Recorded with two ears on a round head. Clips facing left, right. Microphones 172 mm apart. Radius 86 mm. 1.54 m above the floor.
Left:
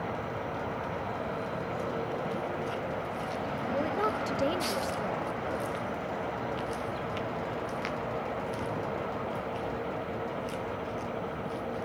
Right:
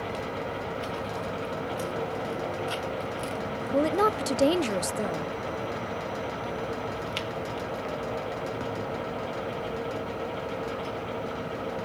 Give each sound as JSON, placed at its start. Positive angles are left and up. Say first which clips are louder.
{"t": 3.7, "sound": "a woman speaking", "louder": "right 8 dB", "side_deg": -60}